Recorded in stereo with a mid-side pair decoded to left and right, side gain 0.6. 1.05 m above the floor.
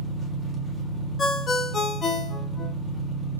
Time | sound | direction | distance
0.0 | an engine running | 5° right | 1.3 m
1.2 | a ringtone | 30° left | 0.8 m